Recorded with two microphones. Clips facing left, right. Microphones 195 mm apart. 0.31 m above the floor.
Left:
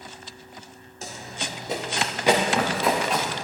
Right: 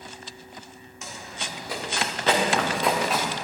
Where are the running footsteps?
30° left (ahead or behind), 4 m; by 3.3 s 5° right (ahead or behind), 3.5 m.